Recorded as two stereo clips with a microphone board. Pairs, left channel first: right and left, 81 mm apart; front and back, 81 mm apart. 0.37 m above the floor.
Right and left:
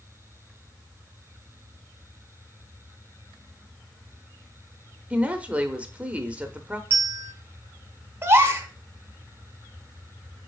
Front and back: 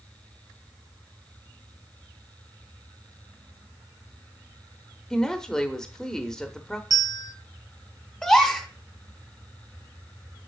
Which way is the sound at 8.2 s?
75° left.